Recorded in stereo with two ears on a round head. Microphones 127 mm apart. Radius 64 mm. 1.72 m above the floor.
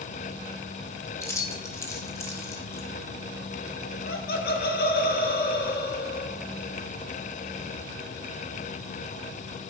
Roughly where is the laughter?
Left.